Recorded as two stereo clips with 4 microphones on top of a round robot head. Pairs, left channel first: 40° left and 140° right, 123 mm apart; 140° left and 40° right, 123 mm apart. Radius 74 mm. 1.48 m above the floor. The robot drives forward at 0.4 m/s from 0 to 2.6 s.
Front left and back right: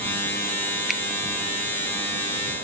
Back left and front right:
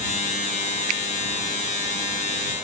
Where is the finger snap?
50° right, 0.8 m; by 1.0 s 55° right, 0.8 m.